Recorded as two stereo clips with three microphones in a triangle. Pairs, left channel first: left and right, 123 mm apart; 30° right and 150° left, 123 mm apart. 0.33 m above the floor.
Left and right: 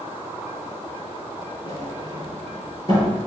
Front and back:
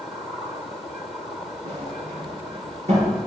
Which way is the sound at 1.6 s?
140° left.